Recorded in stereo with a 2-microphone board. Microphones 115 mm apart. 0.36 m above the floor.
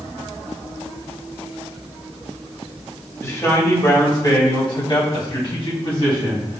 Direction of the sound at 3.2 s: 25° left (ahead or behind).